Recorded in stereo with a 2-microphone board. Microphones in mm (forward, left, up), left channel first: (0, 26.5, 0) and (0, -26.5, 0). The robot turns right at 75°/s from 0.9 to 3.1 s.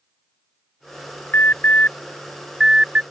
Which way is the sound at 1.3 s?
45° left (ahead or behind).